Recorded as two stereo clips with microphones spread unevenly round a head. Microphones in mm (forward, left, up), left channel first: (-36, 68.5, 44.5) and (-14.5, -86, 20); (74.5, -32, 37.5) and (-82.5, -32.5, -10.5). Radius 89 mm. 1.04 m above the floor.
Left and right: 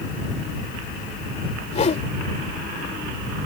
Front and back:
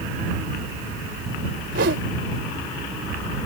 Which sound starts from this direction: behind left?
A whoosh, at 1.7 s.